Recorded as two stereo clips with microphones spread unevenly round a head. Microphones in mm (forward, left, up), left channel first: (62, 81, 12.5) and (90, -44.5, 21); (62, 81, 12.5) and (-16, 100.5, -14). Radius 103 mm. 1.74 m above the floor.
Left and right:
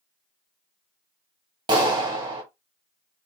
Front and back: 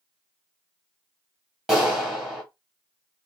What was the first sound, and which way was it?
A clap, 85° right.